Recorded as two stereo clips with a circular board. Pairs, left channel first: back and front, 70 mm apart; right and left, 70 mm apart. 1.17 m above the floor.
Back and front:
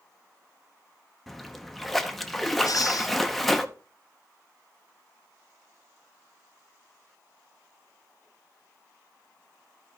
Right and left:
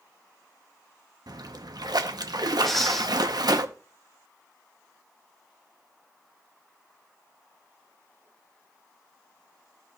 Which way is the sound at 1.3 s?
90° left.